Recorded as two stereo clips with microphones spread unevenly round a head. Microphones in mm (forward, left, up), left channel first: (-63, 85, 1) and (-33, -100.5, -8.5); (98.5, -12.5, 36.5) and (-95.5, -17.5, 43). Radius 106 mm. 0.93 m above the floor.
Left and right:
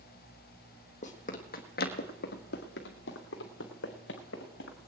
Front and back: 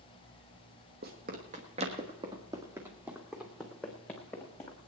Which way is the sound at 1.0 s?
140° left.